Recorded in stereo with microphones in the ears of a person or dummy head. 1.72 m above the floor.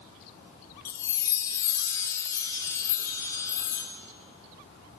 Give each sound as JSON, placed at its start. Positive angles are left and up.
{"t": 0.8, "sound": "a chime", "side_deg": 20, "distance_m": 0.7}